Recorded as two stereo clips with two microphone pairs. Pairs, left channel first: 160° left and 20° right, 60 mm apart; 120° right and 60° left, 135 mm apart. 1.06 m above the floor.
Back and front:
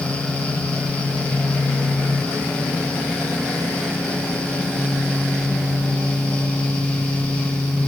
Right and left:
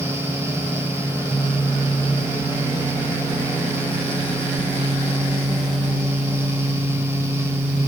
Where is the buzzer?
I don't hear a buzzer.